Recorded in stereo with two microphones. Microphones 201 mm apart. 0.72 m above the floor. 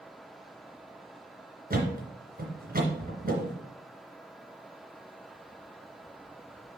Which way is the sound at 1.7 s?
50° right (ahead or behind).